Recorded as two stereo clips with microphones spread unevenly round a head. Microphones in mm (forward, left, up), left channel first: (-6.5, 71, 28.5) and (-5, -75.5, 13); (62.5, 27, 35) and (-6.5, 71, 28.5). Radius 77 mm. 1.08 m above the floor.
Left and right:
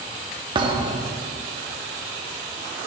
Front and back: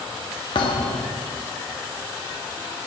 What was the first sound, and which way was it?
A thud, 25° right.